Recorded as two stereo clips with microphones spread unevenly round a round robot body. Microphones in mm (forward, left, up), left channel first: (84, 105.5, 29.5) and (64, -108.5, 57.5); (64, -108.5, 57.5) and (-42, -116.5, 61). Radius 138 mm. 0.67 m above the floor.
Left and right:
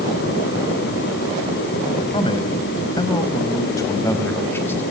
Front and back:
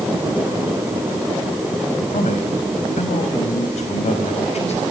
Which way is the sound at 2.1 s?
20° left.